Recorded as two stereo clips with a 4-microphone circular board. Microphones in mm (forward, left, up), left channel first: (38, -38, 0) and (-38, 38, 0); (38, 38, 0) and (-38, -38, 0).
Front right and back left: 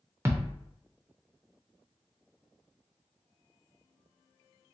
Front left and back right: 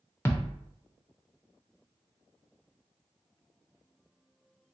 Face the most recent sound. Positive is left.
turn(degrees=90)